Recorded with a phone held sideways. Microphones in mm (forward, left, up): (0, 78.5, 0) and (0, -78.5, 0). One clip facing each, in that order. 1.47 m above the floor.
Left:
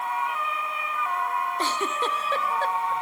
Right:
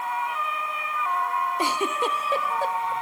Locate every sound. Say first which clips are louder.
1.6 s a giggle: right 2 dB; 10° right (ahead or behind), 0.6 m